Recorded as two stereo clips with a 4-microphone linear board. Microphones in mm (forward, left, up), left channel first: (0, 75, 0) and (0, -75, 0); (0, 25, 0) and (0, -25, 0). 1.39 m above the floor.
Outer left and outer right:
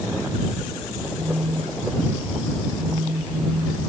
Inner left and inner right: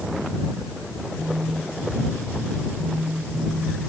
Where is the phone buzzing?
70° right (ahead or behind).